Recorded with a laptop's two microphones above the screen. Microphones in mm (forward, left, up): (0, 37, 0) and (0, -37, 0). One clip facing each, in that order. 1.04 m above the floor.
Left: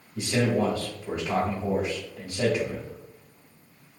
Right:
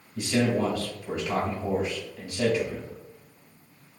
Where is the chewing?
No chewing in this recording.